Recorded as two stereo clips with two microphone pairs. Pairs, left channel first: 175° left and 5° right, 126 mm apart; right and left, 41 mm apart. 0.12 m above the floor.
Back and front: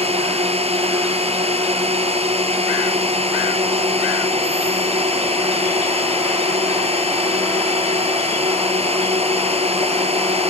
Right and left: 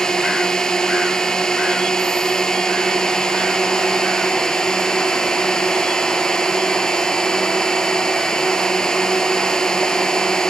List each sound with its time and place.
0.0 s a drone: 20° right